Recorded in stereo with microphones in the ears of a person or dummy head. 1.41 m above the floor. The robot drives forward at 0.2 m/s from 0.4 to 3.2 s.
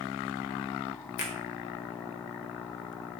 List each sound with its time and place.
1.2 s a finger snap: 55° left (ahead or behind), 0.9 m